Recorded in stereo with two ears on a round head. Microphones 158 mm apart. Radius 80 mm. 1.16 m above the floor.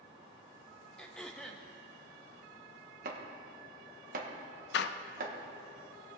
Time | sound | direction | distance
1.0 | throat clearing | 5° left (ahead or behind) | 0.7 m
3.0 | chopping | 50° right (ahead or behind) | 1.4 m
4.7 | a door slam | 70° left (ahead or behind) | 0.5 m